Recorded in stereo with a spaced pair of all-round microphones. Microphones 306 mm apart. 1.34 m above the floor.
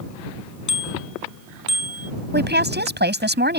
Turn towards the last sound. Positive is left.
turn(degrees=-35)  # may be behind; listen again after turning